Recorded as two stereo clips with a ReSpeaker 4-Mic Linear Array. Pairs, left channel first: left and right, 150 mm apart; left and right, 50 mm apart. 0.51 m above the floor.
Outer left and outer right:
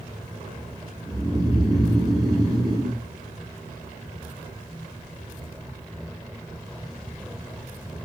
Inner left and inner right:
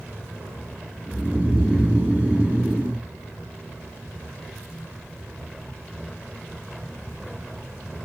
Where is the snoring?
25° right (ahead or behind), 0.7 m.